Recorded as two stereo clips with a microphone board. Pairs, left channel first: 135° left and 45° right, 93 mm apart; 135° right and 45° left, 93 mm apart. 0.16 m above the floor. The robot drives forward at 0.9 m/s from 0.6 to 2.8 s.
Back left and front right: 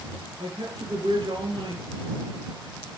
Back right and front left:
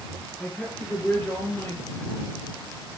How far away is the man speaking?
About 4.5 m.